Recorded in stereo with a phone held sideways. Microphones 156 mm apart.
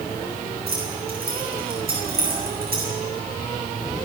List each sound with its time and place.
0.7 s keys jangling: 75° right (ahead or behind), 8.5 m